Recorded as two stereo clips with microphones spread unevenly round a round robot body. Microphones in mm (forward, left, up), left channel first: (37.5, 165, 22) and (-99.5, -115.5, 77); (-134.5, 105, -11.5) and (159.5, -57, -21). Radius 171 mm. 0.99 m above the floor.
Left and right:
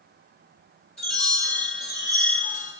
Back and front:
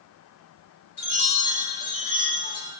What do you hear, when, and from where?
1.0 s a chime: 150° left, 3 m